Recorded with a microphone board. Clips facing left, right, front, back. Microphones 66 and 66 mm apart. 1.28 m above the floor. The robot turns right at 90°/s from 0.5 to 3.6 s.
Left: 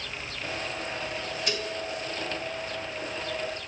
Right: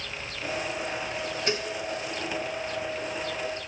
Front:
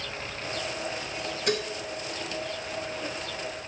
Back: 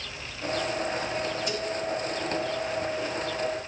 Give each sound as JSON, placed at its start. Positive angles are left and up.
{"t": 1.5, "sound": "dishes clattering", "azimuth_deg": -30, "distance_m": 3.5}